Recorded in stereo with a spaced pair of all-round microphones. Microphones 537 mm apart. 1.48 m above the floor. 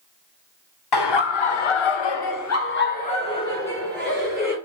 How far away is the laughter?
About 0.9 m.